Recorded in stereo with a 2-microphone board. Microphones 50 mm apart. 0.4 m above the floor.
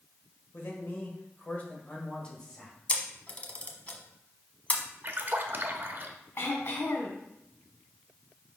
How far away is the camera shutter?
About 0.9 m.